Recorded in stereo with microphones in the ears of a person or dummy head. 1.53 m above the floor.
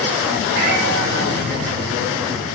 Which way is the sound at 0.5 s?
65° right (ahead or behind).